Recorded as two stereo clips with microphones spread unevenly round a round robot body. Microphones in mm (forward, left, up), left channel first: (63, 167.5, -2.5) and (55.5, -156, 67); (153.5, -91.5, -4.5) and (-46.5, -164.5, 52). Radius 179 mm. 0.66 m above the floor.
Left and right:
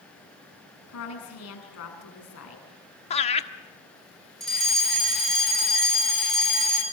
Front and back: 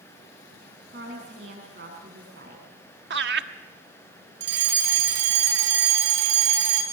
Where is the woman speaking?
135° left, 7 m.